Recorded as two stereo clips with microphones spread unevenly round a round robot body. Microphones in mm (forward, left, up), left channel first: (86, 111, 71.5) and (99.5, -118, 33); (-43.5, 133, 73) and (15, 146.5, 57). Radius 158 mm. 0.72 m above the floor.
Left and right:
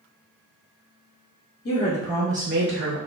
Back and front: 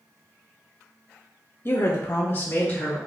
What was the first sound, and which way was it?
A woman speaking, 140° left.